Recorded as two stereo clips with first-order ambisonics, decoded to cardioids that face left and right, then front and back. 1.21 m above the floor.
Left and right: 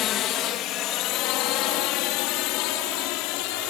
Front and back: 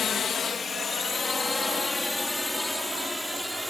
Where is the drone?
55° left; by 3.7 s 90° left.